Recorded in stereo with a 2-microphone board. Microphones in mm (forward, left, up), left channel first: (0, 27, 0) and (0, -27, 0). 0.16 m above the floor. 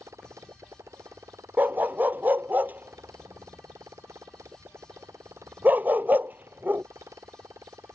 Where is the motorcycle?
70° right (ahead or behind).